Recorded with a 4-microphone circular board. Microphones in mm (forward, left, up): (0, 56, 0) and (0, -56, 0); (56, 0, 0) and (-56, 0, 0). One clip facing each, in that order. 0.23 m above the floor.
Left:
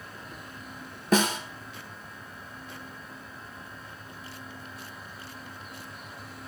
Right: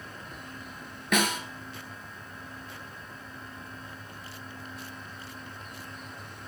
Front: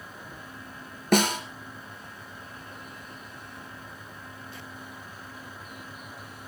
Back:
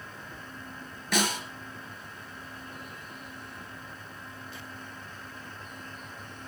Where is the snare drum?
35° left, 3 m.